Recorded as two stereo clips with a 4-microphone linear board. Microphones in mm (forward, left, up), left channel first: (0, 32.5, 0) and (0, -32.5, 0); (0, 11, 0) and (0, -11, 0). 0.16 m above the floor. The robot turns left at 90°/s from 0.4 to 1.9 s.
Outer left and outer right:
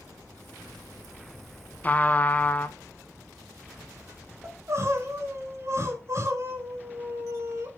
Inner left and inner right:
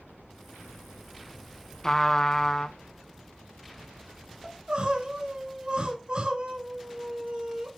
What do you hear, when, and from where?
1.8 s a trumpet: 25° left (ahead or behind), 0.5 m
4.4 s crying: 45° right (ahead or behind), 1.2 m